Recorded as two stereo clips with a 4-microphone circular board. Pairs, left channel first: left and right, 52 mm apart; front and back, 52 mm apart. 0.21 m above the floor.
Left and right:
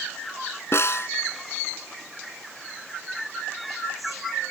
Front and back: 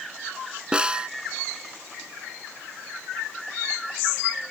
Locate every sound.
0.7 s a snare drum: 110° left